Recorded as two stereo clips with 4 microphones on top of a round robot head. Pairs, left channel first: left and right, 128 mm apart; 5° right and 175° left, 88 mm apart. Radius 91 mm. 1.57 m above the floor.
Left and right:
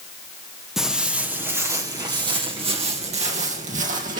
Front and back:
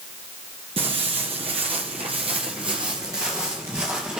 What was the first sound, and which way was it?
Footsteps, 175° right.